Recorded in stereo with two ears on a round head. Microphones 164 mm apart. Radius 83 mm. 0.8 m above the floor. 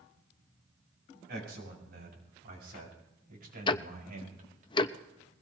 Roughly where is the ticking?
Left.